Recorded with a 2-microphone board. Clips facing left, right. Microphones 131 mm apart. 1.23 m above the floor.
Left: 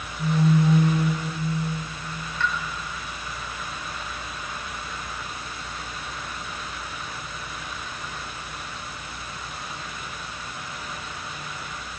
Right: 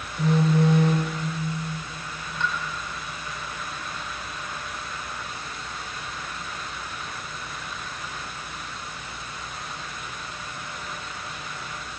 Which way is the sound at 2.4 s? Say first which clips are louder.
Left 1 dB; 20° right (ahead or behind).